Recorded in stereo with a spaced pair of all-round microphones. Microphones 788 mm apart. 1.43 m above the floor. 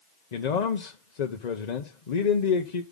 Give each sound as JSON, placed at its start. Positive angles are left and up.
{"t": 0.3, "sound": "a man speaking", "side_deg": 60, "distance_m": 0.9}